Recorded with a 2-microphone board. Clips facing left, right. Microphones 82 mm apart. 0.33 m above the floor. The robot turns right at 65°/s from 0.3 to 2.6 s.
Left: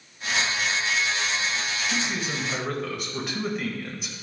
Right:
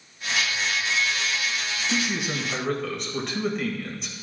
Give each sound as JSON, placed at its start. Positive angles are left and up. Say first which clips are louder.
{"t": 1.9, "sound": "a man speaking", "louder": "right 5 dB", "azimuth_deg": -40, "distance_m": 1.3}